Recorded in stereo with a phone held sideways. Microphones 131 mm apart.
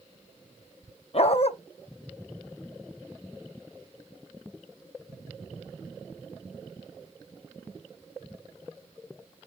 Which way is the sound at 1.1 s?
55° left (ahead or behind).